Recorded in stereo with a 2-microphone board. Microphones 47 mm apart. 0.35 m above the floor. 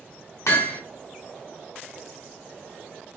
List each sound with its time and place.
0.5 s hammering: 75° left (ahead or behind), 1.2 m